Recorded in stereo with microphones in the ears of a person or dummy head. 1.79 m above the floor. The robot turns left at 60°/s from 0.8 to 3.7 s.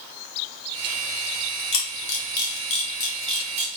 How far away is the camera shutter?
About 1.3 m.